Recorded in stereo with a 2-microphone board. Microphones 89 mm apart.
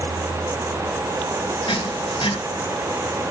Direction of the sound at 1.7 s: 80° left.